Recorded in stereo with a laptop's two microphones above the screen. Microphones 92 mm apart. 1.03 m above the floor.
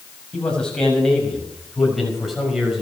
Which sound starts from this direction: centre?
A man speaking, at 0.3 s.